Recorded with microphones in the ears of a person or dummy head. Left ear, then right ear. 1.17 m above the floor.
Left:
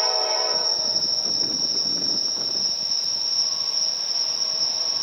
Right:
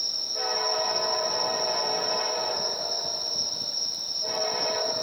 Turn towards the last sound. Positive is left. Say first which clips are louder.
# left 7 dB
turn(degrees=40)  # may be behind; listen again after turning